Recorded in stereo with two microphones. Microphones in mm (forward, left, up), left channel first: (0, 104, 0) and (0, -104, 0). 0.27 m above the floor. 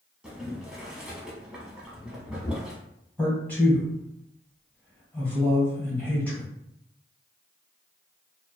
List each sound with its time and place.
0.2 s boiling: 5° right (ahead or behind), 0.8 m
3.2 s a man speaking: 5° left (ahead or behind), 1.1 m